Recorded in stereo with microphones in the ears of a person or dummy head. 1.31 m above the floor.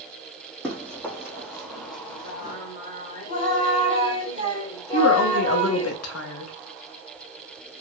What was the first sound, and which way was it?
Running footsteps, 15° left (ahead or behind).